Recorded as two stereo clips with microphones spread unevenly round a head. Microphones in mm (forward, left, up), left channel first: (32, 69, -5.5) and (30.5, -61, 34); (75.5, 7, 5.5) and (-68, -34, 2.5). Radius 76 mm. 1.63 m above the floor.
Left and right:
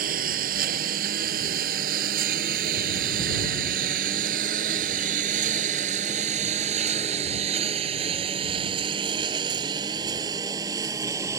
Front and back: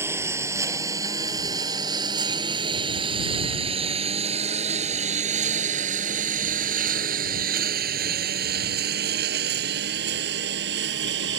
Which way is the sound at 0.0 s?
90° right.